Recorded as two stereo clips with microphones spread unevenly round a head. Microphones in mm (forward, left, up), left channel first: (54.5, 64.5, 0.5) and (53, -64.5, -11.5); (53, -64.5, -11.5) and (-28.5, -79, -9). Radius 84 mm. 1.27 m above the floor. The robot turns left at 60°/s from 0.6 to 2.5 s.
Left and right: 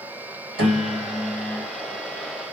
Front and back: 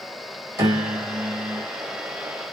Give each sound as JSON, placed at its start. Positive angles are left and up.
{"t": 0.6, "sound": "a piano", "azimuth_deg": -120, "distance_m": 2.0}